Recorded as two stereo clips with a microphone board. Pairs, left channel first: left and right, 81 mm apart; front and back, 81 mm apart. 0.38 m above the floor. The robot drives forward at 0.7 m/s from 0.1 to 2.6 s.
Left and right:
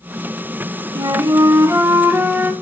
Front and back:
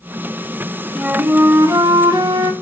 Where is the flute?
100° right, 0.6 m; by 2.5 s 155° right, 1.3 m.